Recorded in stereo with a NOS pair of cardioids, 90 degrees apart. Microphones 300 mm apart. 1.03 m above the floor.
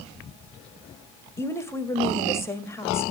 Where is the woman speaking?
10° left, 1.4 m.